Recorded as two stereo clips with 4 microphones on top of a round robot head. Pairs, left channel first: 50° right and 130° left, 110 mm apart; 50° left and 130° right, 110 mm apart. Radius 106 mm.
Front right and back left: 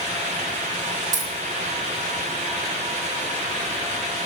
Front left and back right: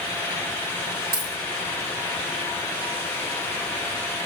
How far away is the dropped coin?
About 4 m.